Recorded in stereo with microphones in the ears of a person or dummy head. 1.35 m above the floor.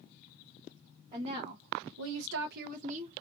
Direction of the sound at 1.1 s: 25° right (ahead or behind).